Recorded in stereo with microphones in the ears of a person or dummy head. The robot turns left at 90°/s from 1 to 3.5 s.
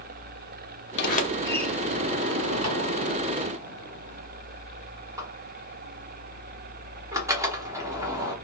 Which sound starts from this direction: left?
A sliding door, at 1.0 s.